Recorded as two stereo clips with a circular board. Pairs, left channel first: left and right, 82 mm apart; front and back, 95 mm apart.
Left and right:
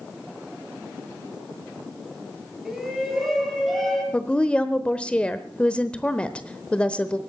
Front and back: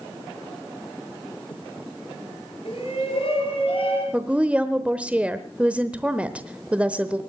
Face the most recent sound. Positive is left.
turn(degrees=135)